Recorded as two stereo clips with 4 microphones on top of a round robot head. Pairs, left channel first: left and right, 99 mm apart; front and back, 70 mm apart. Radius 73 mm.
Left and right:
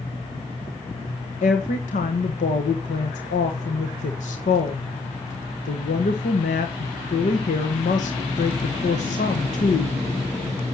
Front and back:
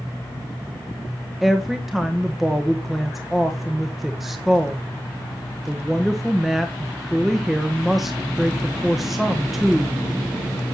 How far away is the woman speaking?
About 1.3 m.